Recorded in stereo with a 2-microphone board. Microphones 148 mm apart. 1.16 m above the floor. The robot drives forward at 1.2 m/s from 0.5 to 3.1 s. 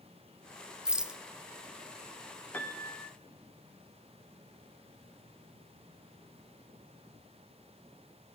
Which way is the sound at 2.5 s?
10° left (ahead or behind).